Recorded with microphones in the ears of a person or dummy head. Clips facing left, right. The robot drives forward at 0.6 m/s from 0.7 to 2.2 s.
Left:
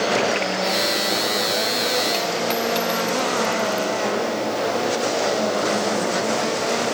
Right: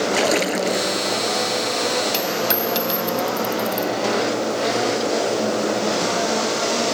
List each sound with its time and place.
0.1 s a splash: 60° right (ahead or behind)
2.1 s a dropped coin: 15° right (ahead or behind)